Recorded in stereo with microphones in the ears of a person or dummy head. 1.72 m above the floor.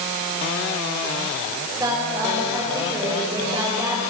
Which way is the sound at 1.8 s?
10° right (ahead or behind).